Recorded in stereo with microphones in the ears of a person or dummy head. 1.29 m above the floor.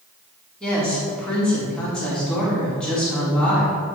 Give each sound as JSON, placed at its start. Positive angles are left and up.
{"t": 0.6, "sound": "a woman speaking", "side_deg": 5, "distance_m": 4.0}